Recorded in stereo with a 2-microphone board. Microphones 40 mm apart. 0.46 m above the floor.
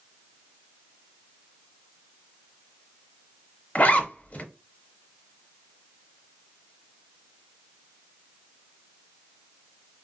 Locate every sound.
3.8 s a zipper: 40° left (ahead or behind), 0.6 m